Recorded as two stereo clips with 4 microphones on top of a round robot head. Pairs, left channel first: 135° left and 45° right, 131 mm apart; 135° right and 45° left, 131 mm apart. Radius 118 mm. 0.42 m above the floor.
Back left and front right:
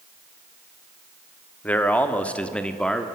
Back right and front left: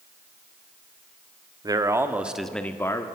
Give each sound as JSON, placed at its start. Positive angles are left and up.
{"t": 1.6, "sound": "a man speaking", "azimuth_deg": 70, "distance_m": 1.3}